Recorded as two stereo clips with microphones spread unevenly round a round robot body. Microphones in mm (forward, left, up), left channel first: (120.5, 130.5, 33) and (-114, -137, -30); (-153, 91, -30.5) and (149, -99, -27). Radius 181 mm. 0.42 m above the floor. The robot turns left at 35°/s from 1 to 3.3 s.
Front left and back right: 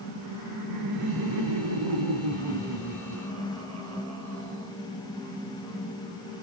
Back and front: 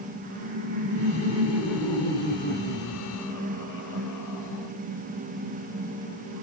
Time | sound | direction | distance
0.2 | laughter | 95° right | 5 m